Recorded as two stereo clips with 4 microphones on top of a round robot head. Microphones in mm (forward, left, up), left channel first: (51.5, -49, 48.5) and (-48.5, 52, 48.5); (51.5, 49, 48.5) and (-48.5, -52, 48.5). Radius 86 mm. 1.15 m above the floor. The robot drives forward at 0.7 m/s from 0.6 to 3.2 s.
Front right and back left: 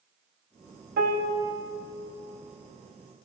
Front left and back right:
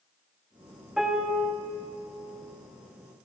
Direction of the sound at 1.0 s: 140° left.